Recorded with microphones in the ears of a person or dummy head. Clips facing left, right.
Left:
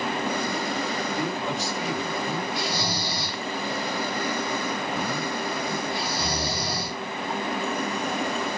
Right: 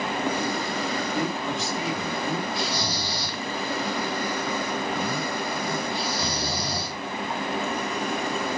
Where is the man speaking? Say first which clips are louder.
Right 1 dB; 45° right (ahead or behind), 1.8 m.